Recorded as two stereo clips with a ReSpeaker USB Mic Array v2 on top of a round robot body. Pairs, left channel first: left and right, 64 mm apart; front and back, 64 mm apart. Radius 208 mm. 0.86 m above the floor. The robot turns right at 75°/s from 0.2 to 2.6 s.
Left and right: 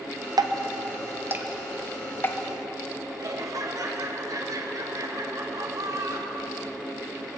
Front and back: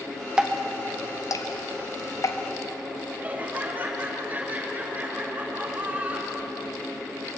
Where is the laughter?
115° right, 2.5 m.